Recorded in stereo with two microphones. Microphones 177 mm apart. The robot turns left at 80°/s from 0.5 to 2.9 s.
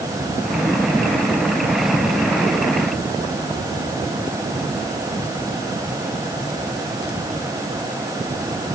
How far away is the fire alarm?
I don't hear a fire alarm.